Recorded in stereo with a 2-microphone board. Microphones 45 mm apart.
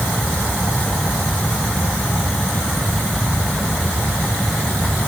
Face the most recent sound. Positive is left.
No sound to turn to.